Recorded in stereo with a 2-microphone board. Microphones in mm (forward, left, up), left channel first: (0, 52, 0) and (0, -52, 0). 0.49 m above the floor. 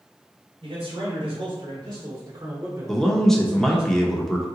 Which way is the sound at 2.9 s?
5° left (ahead or behind).